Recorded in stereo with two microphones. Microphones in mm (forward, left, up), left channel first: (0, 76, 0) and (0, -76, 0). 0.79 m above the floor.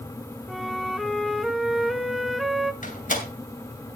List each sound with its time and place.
0.5 s a flute: centre (ahead or behind), 0.8 m
2.8 s a door slam: 60° left (ahead or behind), 2.5 m